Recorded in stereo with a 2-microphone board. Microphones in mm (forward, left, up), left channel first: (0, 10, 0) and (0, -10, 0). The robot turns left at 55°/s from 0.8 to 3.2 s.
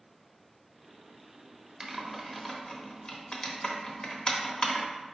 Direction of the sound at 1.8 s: 10° right (ahead or behind).